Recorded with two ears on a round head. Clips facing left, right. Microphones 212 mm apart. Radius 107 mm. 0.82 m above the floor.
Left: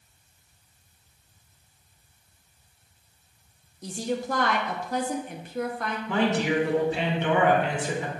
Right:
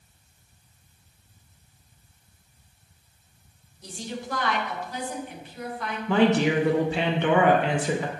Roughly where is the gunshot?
No gunshot in this recording.